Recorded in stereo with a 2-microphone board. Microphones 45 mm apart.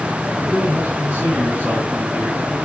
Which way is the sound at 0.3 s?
55° right (ahead or behind).